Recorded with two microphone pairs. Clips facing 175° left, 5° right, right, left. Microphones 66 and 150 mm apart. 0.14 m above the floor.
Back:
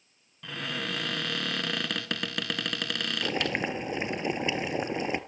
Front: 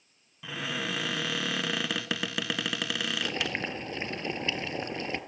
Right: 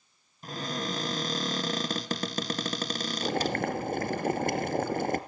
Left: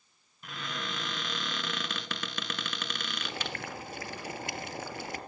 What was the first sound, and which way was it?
A cupboard door, 90° right.